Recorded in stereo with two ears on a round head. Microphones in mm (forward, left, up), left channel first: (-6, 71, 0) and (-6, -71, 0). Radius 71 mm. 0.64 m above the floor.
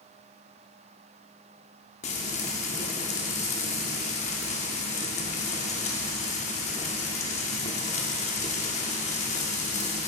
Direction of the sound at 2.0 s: 45° left (ahead or behind).